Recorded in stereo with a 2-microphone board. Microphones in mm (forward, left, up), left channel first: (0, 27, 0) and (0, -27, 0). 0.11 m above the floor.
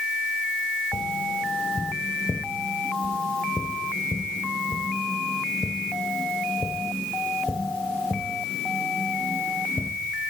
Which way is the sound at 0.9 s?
20° left (ahead or behind).